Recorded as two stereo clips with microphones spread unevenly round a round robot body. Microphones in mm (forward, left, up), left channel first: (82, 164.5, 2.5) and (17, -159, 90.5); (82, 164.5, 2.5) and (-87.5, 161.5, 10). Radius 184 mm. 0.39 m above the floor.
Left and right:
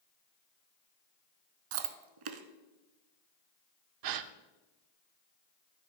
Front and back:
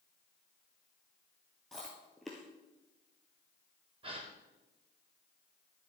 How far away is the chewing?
About 0.9 m.